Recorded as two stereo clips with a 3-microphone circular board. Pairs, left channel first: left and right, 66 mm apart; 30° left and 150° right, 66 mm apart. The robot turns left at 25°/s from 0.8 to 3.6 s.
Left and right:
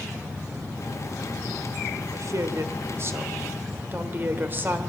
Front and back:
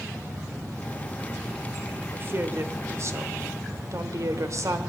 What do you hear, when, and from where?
2.1 s a woman speaking: 105° right, 1.4 m; by 4.8 s 140° right, 1.4 m